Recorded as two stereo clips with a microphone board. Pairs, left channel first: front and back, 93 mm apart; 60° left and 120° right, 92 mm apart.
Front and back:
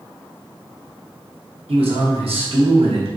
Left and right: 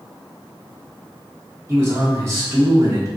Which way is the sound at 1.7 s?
Straight behind.